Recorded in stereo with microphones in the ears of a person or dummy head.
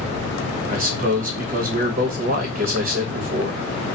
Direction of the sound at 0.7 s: 40° right (ahead or behind).